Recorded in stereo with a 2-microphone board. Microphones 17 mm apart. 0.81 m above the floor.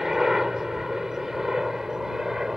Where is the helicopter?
25° right (ahead or behind); by 2.6 s 30° right (ahead or behind).